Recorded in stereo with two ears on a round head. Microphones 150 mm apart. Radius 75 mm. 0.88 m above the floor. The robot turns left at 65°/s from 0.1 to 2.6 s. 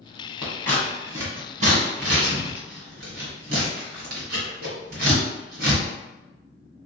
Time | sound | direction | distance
0.4 | scissors | 25° left (ahead or behind) | 1.7 m